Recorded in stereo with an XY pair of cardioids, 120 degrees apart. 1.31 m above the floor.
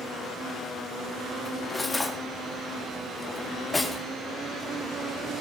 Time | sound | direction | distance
1.4 | cutlery clinking | 15° left | 1.7 m